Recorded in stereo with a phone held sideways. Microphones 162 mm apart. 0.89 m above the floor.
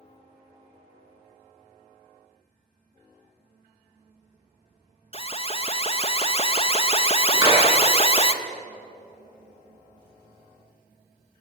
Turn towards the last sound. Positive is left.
turn(degrees=-25)  # may be behind; listen again after turning